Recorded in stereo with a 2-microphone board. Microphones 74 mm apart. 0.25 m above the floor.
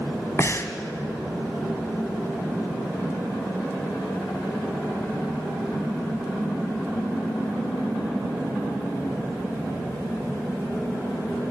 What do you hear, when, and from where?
0.4 s breathing: 40° left (ahead or behind), 1.6 m